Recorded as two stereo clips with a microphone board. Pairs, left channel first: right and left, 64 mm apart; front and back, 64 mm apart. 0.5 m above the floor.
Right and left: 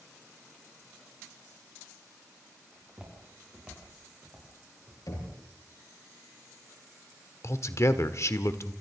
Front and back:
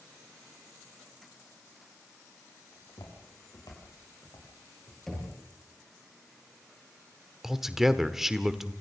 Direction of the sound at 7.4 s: 100° right.